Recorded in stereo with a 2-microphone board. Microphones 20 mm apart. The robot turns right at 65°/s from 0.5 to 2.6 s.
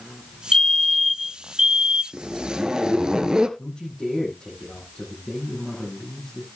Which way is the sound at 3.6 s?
40° left (ahead or behind).